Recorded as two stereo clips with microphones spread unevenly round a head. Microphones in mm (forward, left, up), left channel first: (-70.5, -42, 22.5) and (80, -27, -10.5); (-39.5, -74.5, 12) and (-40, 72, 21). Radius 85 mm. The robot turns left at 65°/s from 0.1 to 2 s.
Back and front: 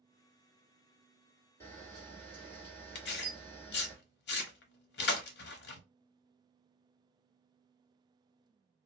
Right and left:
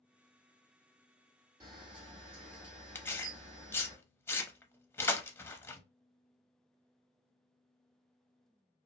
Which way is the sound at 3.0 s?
165° right.